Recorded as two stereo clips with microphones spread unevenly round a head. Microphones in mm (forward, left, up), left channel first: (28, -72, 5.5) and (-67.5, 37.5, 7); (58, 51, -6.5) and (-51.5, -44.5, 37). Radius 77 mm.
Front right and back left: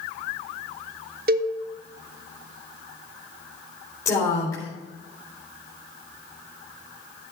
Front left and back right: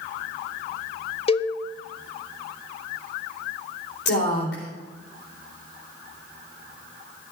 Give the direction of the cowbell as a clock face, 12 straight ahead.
9 o'clock.